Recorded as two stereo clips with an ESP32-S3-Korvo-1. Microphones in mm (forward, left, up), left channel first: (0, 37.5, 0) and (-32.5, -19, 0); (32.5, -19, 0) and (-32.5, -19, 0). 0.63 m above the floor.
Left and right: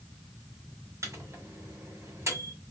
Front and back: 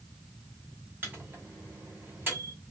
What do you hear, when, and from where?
1.0 s a microwave: 135° right, 1.3 m